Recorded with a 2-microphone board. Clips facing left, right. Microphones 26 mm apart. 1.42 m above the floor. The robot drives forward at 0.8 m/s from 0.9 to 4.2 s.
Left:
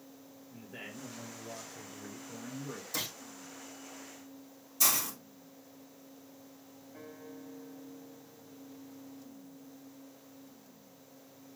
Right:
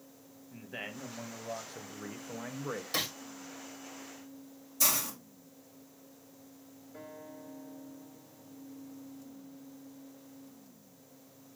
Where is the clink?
I don't hear a clink.